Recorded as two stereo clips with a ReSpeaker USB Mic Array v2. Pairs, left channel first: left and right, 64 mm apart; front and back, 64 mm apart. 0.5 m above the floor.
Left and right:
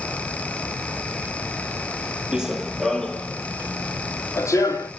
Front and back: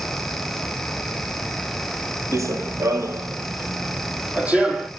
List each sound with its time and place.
2.3 s running footsteps: 165° right, 0.8 m; by 4.9 s 110° left, 1.2 m